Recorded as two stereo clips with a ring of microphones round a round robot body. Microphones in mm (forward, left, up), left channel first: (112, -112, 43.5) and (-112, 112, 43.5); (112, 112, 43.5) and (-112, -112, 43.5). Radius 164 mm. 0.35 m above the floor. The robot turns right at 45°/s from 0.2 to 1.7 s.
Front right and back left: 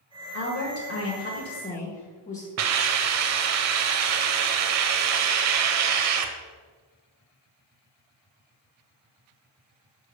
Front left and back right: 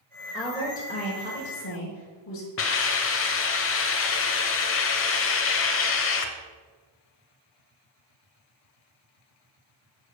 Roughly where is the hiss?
Left.